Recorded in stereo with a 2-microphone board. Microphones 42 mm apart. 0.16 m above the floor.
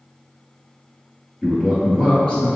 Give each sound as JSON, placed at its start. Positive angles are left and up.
{"t": 1.4, "sound": "a man speaking", "side_deg": 0, "distance_m": 1.9}